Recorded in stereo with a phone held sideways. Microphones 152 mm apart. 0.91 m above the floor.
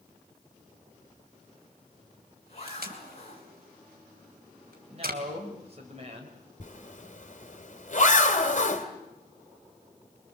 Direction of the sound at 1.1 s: 45° left (ahead or behind).